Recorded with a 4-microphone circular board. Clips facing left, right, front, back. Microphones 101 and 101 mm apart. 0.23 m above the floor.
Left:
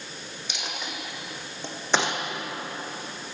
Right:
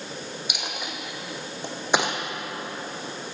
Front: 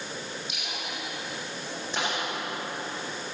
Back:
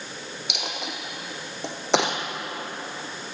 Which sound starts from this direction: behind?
A dropped coin, at 0.5 s.